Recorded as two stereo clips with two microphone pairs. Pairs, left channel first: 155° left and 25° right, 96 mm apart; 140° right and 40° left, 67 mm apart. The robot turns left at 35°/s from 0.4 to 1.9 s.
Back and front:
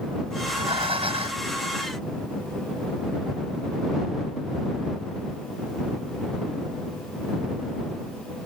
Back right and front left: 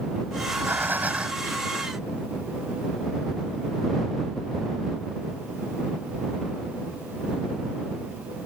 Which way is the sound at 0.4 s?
5° right.